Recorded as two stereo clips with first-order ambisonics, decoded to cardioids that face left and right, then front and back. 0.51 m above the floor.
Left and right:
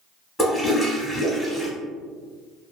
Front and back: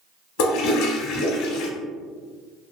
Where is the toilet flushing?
10° left, 0.6 m.